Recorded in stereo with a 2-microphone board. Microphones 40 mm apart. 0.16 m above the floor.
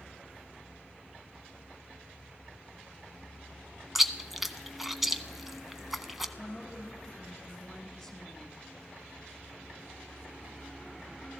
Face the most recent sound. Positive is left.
turn(degrees=5)  # may be behind; listen again after turning